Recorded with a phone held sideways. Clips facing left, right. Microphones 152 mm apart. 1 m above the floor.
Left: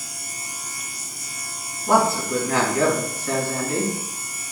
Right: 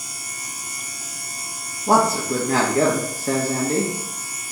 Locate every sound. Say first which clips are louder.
1.9 s a man speaking: right 1 dB; 35° right (ahead or behind), 1.6 m